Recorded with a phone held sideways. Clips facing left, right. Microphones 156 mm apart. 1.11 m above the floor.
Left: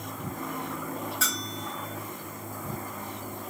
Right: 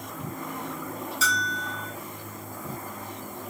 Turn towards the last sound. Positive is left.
turn(degrees=55)  # may be behind; listen again after turning